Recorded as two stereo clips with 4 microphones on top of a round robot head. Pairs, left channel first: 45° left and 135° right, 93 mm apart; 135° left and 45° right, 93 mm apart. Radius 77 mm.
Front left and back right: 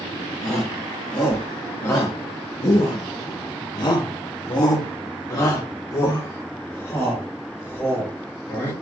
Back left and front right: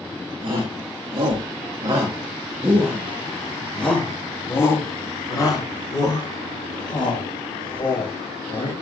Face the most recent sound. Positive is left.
turn(degrees=110)